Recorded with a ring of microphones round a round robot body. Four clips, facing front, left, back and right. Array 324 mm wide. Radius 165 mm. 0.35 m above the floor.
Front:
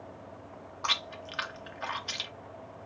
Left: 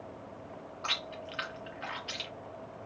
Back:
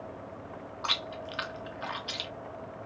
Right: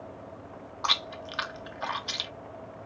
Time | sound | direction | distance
0.8 | chewing | 85° right | 0.8 m